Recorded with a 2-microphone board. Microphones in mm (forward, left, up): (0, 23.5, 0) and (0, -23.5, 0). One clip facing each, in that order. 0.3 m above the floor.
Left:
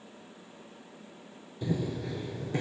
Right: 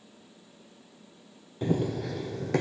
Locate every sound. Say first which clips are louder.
1.6 s running footsteps: right 4 dB; 45° right (ahead or behind), 0.6 m; by 2.6 s 70° right (ahead or behind), 1.0 m